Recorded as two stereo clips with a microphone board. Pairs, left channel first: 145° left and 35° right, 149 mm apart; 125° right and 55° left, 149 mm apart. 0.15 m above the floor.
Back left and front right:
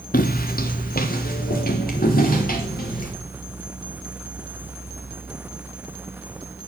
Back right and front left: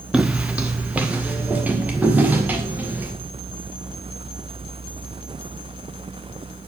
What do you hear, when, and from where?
0.1 s footsteps: 140° left, 0.6 m; by 3.1 s 135° left, 2 m